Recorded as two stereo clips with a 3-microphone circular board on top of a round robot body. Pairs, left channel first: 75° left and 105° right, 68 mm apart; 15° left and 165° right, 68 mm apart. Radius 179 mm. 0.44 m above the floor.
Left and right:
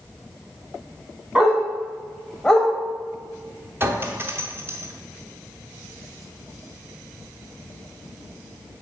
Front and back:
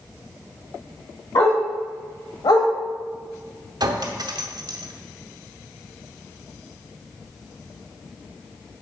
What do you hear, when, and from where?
1.4 s a dog barking: 25° right, 1.9 m; by 2.7 s straight ahead, 0.9 m
3.8 s a clink: 160° right, 0.9 m